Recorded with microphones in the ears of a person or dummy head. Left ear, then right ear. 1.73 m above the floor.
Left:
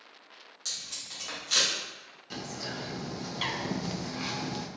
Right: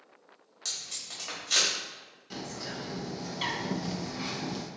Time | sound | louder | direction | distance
0.7 | tape being pulled | even | 20° right (ahead or behind) | 1.7 m
2.3 | a bird | left 1 dB | 10° left (ahead or behind) | 0.5 m